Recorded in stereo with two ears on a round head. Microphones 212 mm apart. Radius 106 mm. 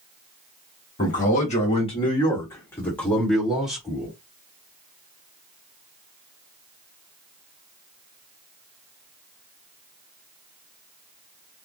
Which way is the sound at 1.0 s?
35° left (ahead or behind).